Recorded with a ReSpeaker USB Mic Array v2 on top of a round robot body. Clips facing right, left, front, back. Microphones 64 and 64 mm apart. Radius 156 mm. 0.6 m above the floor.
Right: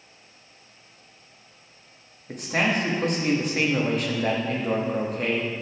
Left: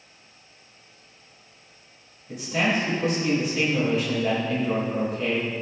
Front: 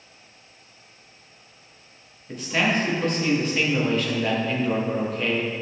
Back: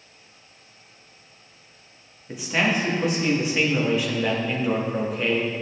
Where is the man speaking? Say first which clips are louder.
Even, even; 100° right, 1.5 m.